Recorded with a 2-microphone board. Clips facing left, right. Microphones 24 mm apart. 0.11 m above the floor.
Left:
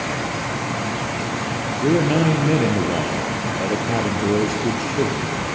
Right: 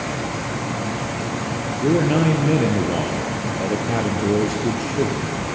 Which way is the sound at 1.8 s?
10° left (ahead or behind).